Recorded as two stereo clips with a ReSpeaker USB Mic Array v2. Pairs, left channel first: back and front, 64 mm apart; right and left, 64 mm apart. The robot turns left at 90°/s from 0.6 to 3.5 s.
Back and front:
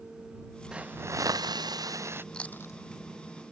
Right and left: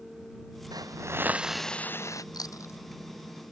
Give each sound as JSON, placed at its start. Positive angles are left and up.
{"t": 0.7, "sound": "a hiss", "azimuth_deg": 75}
{"t": 2.3, "sound": "chewing", "azimuth_deg": -100}